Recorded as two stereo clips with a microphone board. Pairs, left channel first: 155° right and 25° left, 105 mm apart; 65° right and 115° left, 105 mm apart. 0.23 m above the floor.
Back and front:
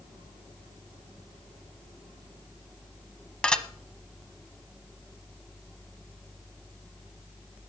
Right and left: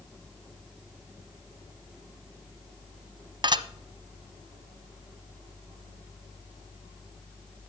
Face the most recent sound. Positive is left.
turn(degrees=125)